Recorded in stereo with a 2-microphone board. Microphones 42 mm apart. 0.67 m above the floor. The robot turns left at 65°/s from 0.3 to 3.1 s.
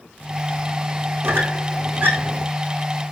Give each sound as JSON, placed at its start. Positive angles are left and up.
{"t": 1.2, "sound": "a squeak", "side_deg": -70, "distance_m": 5.0}